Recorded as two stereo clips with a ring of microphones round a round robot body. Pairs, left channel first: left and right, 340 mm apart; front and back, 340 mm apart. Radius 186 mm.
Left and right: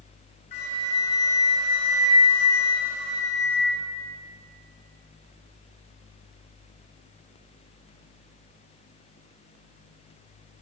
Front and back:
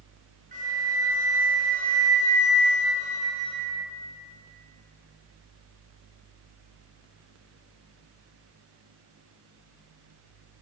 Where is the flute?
110° left, 4 m.